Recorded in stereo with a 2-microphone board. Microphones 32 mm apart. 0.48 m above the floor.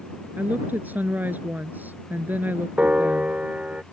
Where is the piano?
45° right (ahead or behind).